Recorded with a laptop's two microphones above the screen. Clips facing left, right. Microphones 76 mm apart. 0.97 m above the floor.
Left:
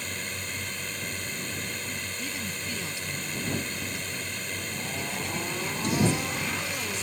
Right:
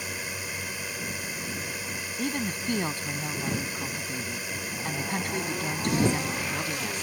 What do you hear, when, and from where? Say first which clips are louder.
0.0 s a drone: right 1 dB; 10° right (ahead or behind)
2.2 s a woman speaking: right 5 dB; 55° right (ahead or behind)